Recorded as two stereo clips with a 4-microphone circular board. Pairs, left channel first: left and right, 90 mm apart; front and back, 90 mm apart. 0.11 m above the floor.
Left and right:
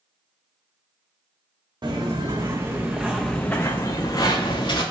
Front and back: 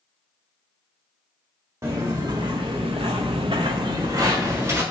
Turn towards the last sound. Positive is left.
turn(degrees=120)